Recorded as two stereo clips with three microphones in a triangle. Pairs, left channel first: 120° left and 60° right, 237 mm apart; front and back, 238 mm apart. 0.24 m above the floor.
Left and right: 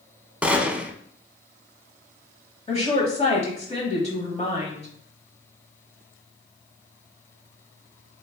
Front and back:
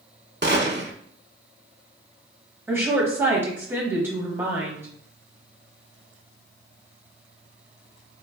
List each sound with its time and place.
0.4 s a gunshot: 145° right, 0.5 m
2.7 s a woman speaking: 110° left, 1.0 m